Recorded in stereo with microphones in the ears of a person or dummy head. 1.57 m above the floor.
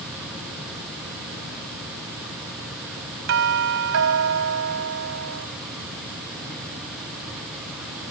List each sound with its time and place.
3.3 s a doorbell: 70° right (ahead or behind)